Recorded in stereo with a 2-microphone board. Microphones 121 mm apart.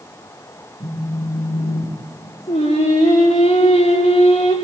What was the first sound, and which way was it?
A phone buzzing, 75° left (ahead or behind).